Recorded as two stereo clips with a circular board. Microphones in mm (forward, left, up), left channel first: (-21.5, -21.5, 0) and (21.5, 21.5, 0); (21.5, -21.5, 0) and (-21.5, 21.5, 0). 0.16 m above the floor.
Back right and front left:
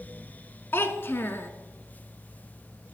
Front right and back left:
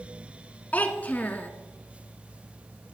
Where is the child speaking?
95° right, 0.9 m.